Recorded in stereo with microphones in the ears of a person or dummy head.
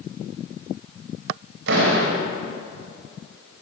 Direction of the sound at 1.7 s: 80° right.